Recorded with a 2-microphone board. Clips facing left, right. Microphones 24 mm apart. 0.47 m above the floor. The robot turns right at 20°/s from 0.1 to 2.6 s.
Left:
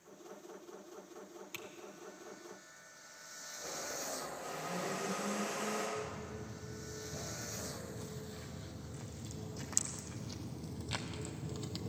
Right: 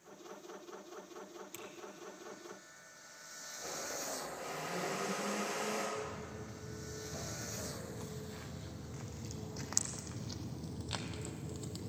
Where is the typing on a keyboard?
30° left (ahead or behind), 1.5 m; by 1.7 s 25° left (ahead or behind), 1.5 m.